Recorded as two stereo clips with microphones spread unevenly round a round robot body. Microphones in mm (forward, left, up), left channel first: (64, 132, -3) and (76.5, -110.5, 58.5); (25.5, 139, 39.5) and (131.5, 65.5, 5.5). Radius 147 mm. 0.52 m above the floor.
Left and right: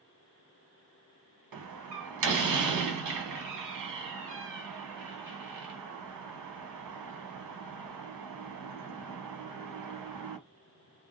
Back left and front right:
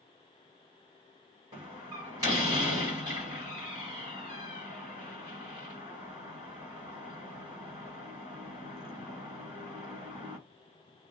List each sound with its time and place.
1.5 s a door slam: 100° right, 1.2 m